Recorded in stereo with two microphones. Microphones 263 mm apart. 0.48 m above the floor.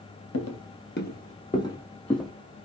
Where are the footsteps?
60° left (ahead or behind), 0.8 m; by 2.3 s centre (ahead or behind), 1.3 m.